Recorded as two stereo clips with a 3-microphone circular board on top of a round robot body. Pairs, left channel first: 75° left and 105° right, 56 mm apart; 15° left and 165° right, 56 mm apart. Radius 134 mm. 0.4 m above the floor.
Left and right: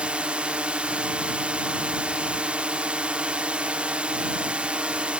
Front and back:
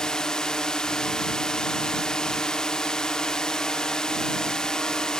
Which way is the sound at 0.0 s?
55° right.